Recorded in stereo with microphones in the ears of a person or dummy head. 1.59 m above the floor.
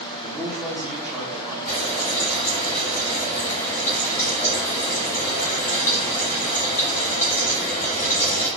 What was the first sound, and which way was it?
A man speaking, 10° right (ahead or behind).